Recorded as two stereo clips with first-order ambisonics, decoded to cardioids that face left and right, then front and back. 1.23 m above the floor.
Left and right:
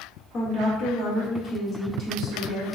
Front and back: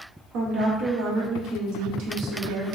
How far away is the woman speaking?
About 0.9 m.